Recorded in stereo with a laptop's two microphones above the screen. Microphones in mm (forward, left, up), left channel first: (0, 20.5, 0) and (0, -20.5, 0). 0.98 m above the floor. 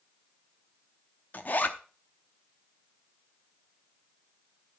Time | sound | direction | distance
1.3 | a zipper | 50° left (ahead or behind) | 0.8 m